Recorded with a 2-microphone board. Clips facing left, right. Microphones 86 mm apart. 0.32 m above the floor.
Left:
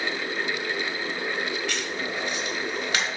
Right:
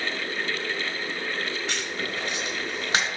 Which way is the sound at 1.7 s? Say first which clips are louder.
Left 1 dB; 25° right (ahead or behind).